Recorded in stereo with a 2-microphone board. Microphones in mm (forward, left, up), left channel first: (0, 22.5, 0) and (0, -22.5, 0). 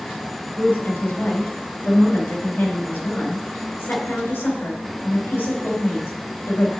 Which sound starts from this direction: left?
A woman speaking, at 0.6 s.